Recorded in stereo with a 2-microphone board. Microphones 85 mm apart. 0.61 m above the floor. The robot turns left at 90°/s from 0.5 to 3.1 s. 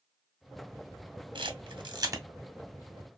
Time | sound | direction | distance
1.4 | a camera shutter | 75° right (ahead or behind) | 0.6 m